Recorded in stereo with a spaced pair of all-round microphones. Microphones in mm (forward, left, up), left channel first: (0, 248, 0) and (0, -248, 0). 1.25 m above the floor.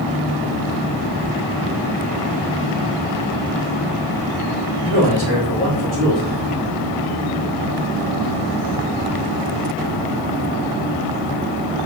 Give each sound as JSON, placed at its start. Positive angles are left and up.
{"t": 4.8, "sound": "a man speaking", "side_deg": -70, "distance_m": 4.0}